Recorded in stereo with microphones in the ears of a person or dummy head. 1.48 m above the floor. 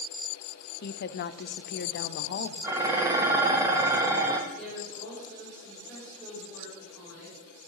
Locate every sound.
0.8 s a woman speaking: 50° left (ahead or behind), 0.5 m
2.6 s dishes clattering: 15° right (ahead or behind), 1.0 m
4.5 s a woman speaking: 5° right (ahead or behind), 5 m